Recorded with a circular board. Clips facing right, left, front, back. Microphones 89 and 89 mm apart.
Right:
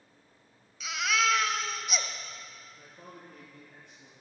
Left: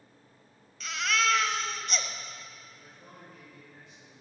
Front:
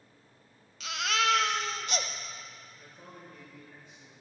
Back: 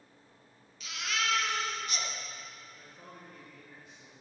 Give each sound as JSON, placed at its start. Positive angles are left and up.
{"t": 0.8, "sound": "a baby crying", "azimuth_deg": -5, "distance_m": 0.8}
{"t": 2.8, "sound": "a man speaking", "azimuth_deg": -95, "distance_m": 4.5}